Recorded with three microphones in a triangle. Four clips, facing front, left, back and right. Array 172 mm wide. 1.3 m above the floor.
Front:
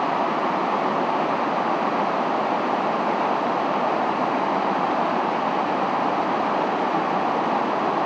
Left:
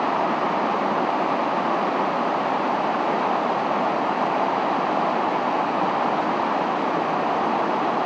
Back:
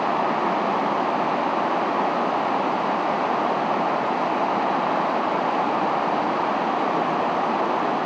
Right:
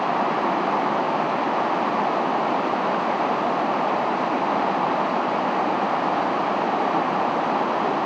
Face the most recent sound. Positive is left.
No sound to turn to.